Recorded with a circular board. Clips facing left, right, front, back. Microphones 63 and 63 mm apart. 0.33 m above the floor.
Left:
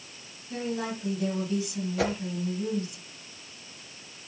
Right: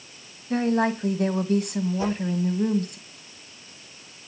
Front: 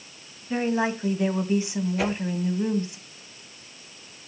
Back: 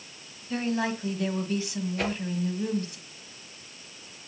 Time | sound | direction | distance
0.5 | a woman speaking | 65° right | 1.8 m
2.0 | a whoosh | 85° left | 2.5 m